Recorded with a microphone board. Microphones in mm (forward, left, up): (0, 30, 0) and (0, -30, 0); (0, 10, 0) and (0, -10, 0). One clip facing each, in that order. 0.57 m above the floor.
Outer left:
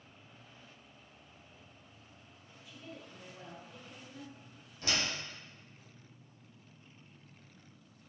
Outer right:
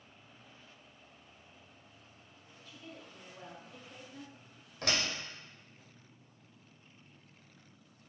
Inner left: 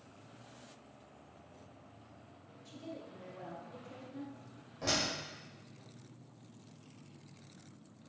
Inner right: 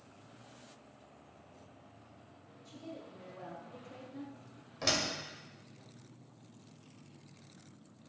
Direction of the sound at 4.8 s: 70° right (ahead or behind).